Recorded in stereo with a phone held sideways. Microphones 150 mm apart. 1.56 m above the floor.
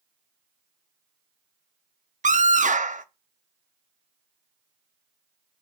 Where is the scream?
55° right (ahead or behind), 0.6 m.